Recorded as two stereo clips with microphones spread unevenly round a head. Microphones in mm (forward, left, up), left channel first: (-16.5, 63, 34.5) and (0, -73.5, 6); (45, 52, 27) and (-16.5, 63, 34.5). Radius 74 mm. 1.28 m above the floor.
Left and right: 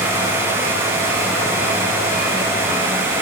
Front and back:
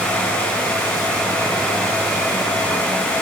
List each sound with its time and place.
Only background noise.